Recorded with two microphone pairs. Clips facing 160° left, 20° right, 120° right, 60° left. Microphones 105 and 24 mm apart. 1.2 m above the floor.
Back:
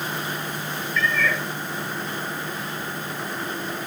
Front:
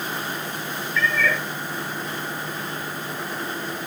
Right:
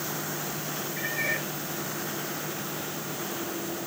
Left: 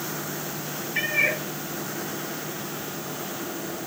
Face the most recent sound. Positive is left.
turn(degrees=65)